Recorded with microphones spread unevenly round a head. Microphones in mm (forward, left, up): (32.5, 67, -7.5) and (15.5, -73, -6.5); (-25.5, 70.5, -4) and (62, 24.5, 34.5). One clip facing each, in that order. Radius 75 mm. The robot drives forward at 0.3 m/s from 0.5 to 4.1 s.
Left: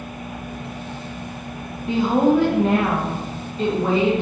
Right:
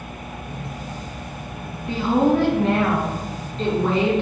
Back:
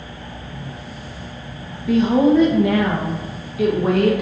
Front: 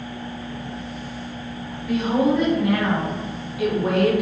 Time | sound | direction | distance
1.9 | a woman speaking | 155° left | 1.4 m